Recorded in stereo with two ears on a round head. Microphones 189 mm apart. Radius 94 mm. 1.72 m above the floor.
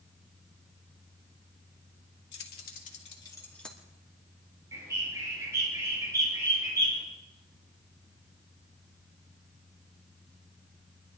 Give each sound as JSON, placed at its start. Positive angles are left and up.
{"t": 2.3, "sound": "keys jangling", "side_deg": 60, "distance_m": 2.5}
{"t": 4.7, "sound": "a bird", "side_deg": -15, "distance_m": 5.5}